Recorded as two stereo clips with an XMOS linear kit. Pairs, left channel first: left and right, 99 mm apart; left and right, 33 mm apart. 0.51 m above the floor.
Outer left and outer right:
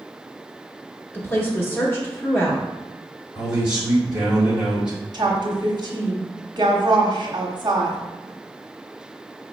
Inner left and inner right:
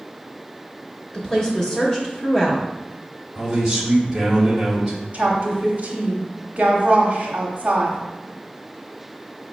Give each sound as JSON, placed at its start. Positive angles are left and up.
{"t": 1.1, "sound": "a woman speaking", "side_deg": 25, "distance_m": 1.2}
{"t": 3.4, "sound": "a man speaking", "side_deg": -10, "distance_m": 1.4}
{"t": 5.1, "sound": "a woman speaking", "side_deg": -45, "distance_m": 0.9}